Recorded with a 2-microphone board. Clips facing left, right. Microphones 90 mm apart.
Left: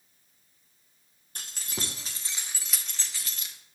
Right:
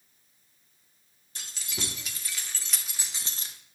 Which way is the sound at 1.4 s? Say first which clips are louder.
Left 1 dB; 50° left (ahead or behind).